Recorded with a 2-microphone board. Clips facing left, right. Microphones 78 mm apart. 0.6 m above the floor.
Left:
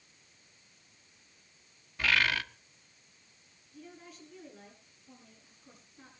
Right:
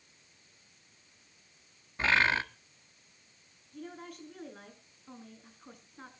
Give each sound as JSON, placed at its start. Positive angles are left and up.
{"t": 2.0, "sound": "a bird", "side_deg": -30, "distance_m": 1.1}
{"t": 3.7, "sound": "a woman speaking", "side_deg": -60, "distance_m": 7.0}